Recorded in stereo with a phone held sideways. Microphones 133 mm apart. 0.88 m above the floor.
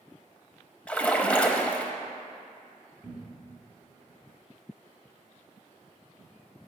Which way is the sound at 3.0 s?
10° right (ahead or behind).